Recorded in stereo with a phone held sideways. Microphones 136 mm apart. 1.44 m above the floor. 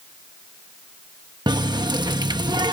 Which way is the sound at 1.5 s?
30° right (ahead or behind).